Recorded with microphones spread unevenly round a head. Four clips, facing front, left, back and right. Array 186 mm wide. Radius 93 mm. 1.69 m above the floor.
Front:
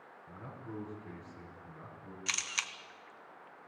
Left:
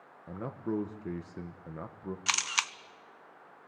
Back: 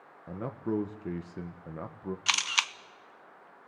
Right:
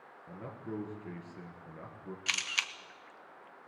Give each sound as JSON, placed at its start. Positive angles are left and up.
{"t": 0.3, "sound": "a man speaking", "azimuth_deg": 150, "distance_m": 1.2}
{"t": 2.3, "sound": "a camera shutter", "azimuth_deg": 145, "distance_m": 0.6}